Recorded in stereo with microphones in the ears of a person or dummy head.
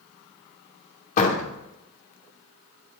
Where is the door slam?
50° left (ahead or behind), 2.5 m.